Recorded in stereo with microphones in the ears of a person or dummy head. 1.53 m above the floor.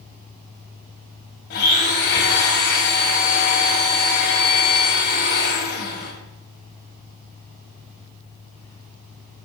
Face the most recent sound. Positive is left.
turn(degrees=50)  # may be behind; listen again after turning